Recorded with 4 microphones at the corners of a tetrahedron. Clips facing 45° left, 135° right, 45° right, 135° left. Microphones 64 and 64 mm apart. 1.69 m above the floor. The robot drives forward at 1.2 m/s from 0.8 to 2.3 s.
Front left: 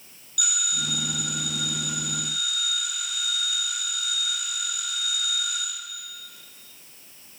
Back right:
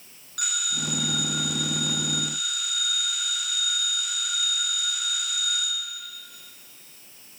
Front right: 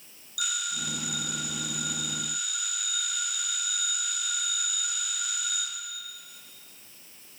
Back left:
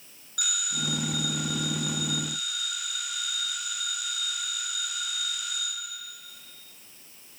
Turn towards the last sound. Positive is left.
turn(degrees=180)